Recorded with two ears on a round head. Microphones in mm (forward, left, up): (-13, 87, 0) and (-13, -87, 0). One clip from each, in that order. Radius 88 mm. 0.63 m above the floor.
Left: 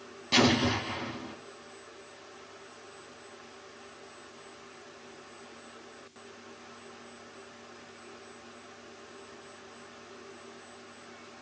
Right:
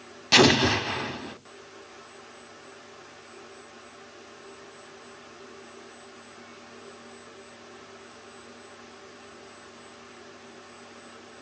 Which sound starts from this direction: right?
An explosion, at 0.3 s.